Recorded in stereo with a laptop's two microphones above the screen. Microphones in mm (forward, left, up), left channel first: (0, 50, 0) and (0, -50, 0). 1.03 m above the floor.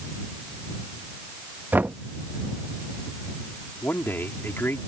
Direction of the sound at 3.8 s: 25° left (ahead or behind).